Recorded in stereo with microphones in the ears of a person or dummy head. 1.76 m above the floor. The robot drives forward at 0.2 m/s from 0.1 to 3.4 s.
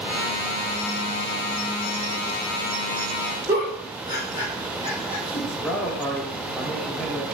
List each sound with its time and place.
3.5 s a giggle: 25° right (ahead or behind), 1.4 m
5.5 s a man speaking: 5° right (ahead or behind), 0.7 m